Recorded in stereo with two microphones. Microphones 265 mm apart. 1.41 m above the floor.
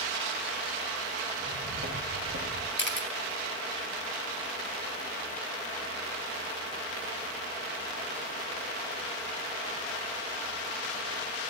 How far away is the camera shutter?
About 4 m.